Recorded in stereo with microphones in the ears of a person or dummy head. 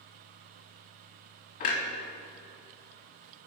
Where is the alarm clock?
No alarm clock in this recording.